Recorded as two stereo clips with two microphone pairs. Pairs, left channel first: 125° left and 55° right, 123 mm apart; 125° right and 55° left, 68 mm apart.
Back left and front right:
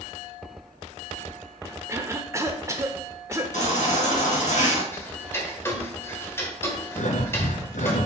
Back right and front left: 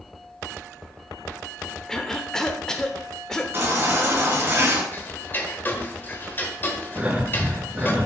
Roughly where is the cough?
Ahead right.